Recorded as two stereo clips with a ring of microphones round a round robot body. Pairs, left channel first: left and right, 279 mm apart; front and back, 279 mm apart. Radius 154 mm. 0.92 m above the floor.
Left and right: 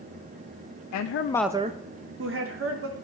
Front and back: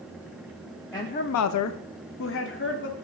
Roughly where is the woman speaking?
Left.